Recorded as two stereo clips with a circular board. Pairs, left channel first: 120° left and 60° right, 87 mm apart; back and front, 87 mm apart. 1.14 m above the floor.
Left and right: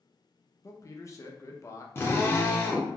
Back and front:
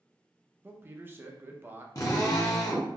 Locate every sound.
0.6 s a man speaking: 65° left, 0.5 m
1.9 s a drill: 165° left, 0.8 m